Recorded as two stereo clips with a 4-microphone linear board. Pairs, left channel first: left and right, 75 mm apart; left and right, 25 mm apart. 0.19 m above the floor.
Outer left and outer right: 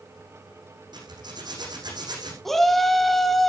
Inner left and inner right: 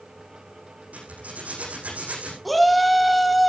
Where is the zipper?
75° right (ahead or behind), 9 m.